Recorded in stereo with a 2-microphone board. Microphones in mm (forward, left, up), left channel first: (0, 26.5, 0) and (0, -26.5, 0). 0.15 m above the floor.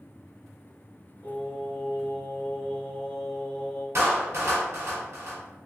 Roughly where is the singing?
Centre.